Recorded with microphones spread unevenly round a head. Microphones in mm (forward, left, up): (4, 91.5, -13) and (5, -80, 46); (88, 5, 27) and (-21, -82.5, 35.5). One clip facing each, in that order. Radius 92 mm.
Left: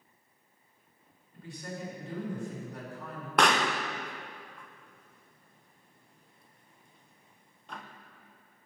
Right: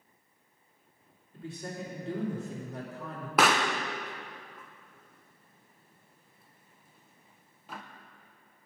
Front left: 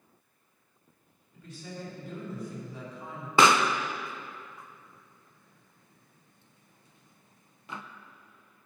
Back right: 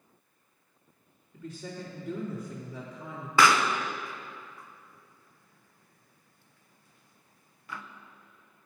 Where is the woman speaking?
155° right, 2.5 m.